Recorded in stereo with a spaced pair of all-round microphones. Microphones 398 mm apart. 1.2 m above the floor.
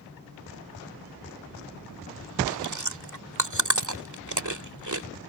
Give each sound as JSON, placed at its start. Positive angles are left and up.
{"t": 2.5, "sound": "chewing", "side_deg": -50}